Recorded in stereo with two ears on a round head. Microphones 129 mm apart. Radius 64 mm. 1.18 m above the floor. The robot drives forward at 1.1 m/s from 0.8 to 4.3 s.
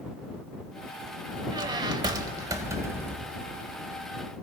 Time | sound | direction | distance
1.5 | a squeak | 30° right (ahead or behind) | 1.1 m